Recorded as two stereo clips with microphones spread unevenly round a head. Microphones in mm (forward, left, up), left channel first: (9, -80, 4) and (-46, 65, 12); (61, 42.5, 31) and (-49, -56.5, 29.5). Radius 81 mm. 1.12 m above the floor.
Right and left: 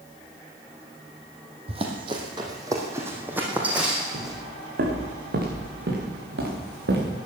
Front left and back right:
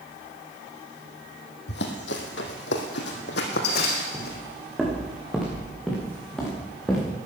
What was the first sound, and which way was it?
Running footsteps, 60° left.